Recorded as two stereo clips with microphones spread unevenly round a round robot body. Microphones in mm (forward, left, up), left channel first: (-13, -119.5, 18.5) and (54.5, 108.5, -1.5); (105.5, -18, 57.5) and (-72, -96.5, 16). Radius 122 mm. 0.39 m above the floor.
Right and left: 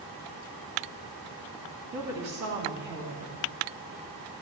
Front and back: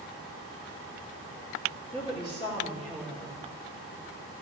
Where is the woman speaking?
90° left, 3.5 m.